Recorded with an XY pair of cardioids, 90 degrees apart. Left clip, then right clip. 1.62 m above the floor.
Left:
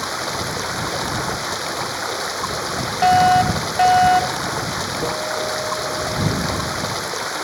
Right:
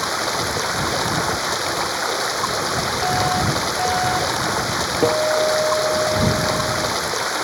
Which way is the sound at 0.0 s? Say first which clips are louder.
Right 3 dB; 20° right.